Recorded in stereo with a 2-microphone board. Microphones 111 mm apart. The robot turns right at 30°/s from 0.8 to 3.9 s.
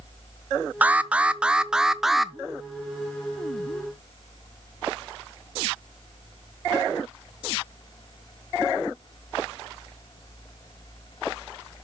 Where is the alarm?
15° right (ahead or behind), 0.5 m; by 2.3 s centre (ahead or behind), 0.5 m.